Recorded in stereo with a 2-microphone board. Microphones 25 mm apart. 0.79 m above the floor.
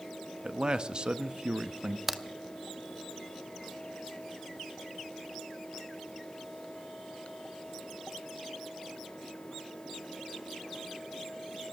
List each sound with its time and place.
0.4 s a man speaking: 35° right (ahead or behind), 0.6 m
2.1 s a crack: 10° right (ahead or behind), 0.7 m